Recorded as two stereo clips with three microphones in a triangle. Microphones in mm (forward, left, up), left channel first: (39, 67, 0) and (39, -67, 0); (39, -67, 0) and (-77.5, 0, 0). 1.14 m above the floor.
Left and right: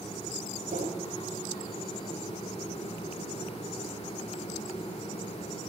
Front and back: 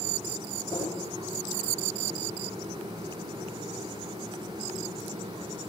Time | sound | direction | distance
0.7 | a whoosh | 95° right | 8 m